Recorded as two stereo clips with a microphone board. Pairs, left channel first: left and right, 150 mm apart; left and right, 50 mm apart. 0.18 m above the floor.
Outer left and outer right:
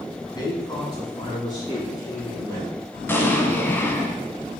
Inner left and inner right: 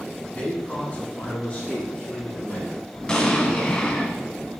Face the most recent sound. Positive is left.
turn(degrees=15)  # may be behind; listen again after turning